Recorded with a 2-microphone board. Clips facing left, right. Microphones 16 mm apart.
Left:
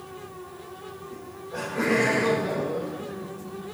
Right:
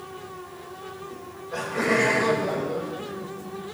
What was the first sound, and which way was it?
Laughter, 65° right (ahead or behind).